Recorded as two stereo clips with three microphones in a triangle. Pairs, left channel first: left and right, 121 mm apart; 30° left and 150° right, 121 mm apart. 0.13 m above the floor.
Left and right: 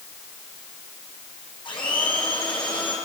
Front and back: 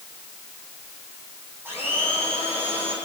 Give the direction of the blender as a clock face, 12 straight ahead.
7 o'clock.